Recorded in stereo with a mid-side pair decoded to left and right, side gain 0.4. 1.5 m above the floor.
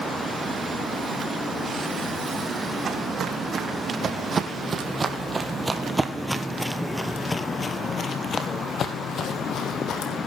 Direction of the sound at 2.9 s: 65° right.